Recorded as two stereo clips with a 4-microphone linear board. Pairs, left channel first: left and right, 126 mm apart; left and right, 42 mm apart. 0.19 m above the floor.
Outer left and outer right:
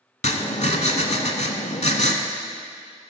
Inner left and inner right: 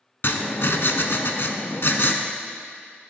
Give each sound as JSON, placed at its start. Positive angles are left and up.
{"t": 0.2, "sound": "writing", "side_deg": 65, "distance_m": 0.6}